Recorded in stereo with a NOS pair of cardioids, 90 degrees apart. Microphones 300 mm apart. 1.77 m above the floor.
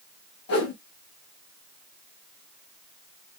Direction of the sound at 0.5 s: 50° left.